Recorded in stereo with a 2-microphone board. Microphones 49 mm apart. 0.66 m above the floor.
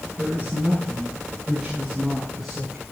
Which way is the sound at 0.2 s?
15° right (ahead or behind).